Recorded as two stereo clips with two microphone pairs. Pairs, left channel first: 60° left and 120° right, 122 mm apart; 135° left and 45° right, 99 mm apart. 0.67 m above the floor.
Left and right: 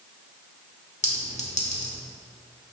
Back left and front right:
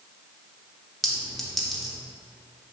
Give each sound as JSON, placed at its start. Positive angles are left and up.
{"t": 1.0, "sound": "a clink", "azimuth_deg": 50, "distance_m": 1.1}